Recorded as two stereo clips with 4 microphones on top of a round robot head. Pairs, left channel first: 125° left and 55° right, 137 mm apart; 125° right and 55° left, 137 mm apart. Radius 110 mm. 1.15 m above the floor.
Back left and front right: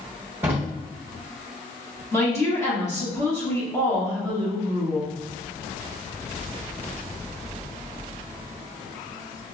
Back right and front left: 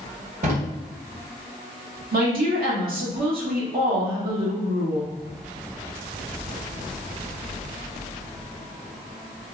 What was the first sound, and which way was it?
A drawer, 20° left.